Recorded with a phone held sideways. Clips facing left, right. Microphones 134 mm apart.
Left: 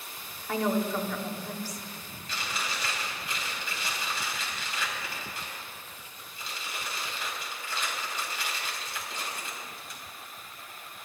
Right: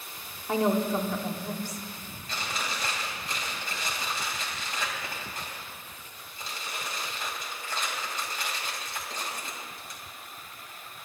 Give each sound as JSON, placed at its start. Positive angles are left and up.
{"t": 0.5, "sound": "a woman speaking", "side_deg": -25, "distance_m": 1.1}
{"t": 2.3, "sound": "chewing", "side_deg": -45, "distance_m": 2.5}